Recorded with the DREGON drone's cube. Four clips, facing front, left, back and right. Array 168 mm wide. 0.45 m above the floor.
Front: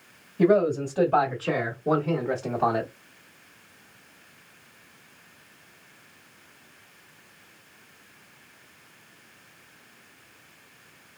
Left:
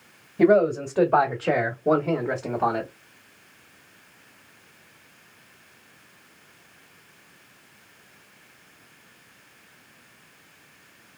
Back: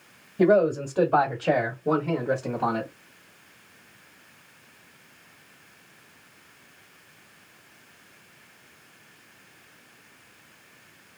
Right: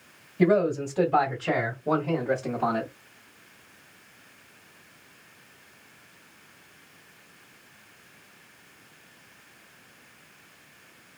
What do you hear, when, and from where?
0.4 s a man speaking: 125° left, 1.7 m; by 2.9 s 55° left, 1.2 m